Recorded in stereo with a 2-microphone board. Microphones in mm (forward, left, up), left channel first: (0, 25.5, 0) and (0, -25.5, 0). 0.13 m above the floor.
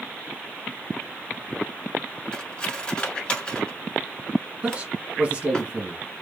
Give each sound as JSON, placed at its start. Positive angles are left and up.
{"t": 2.3, "sound": "cutlery clinking", "side_deg": 20, "distance_m": 0.9}
{"t": 4.6, "sound": "a man speaking", "side_deg": -20, "distance_m": 1.6}